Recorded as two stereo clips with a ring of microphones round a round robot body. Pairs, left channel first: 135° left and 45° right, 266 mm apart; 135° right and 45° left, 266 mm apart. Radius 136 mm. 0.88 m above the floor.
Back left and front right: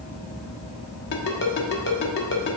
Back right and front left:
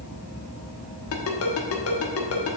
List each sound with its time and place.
1.1 s a ringtone: 175° right, 1.2 m